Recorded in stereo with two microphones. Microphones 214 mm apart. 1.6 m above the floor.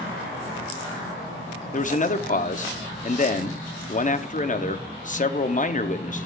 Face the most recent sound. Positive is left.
turn(degrees=35)  # may be behind; listen again after turning